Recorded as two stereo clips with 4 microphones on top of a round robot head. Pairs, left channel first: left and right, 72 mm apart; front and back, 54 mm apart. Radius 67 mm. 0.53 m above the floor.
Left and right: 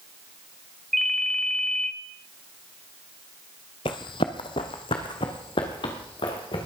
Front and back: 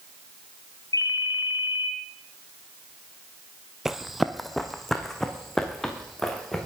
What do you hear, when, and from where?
0.9 s a ringtone: 5° left, 1.6 m
3.9 s running footsteps: 95° left, 0.8 m; by 6.7 s 80° left, 4 m